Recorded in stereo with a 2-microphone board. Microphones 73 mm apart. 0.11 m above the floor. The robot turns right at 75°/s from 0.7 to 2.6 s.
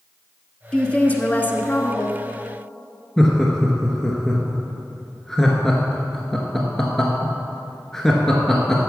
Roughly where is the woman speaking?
Centre.